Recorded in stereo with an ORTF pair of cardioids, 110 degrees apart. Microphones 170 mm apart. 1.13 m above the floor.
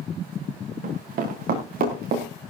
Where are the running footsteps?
55° right, 6 m; by 2.3 s 60° right, 6 m.